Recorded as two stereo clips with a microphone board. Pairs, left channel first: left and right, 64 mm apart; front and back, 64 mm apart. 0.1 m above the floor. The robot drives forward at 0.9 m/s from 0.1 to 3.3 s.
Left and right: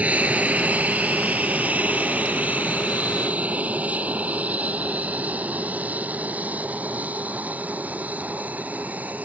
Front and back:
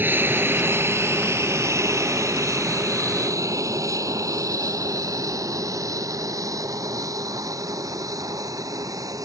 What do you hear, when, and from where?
0.0 s an aircraft: 145° right; by 9.2 s 155° right